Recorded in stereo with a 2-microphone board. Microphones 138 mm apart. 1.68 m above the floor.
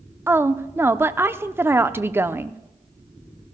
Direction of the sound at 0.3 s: 15° right (ahead or behind).